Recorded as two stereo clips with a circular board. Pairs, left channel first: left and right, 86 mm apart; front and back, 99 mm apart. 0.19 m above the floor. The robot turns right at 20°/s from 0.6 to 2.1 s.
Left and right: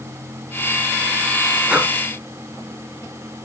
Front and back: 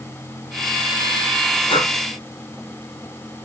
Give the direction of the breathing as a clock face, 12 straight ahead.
1 o'clock.